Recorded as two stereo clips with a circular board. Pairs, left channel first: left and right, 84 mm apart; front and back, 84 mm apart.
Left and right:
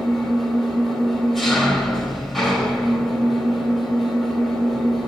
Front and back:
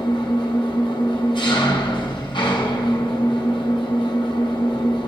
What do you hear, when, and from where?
0.0 s an engine running: straight ahead, 1.5 m